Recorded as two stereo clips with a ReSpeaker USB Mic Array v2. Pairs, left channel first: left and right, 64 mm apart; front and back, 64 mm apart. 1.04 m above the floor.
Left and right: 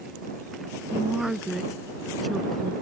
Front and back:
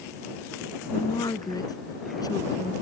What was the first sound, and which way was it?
A woman speaking, 10° right.